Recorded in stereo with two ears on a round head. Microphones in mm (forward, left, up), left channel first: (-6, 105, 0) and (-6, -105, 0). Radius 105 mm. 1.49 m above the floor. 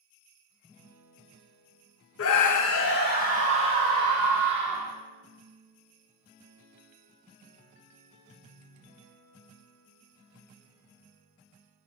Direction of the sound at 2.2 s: 60° left (ahead or behind).